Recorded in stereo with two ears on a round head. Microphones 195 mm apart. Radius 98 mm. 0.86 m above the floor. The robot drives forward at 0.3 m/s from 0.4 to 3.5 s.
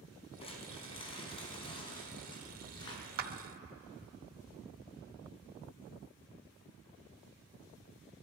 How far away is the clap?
About 0.9 m.